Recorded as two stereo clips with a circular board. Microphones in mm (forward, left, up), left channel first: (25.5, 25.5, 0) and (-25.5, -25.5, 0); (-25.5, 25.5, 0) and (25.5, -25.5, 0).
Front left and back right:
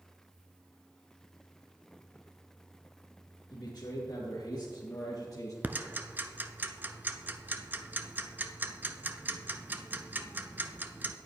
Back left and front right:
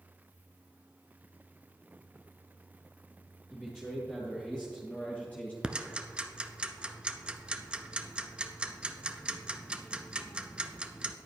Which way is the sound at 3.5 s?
45° left.